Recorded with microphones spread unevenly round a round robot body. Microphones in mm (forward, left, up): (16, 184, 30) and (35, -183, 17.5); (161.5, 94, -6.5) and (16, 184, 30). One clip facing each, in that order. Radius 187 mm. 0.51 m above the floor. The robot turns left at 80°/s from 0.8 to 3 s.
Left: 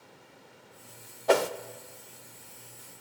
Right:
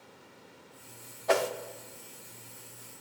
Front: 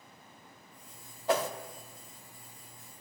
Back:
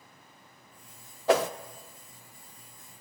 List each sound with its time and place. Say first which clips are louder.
1.3 s a whoosh: left 4 dB, back 5 dB; 135° left, 0.5 m; by 1.5 s 115° left, 0.5 m